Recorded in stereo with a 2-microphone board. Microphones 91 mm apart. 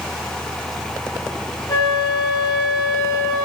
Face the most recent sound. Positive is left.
turn(degrees=35)  # may be behind; listen again after turning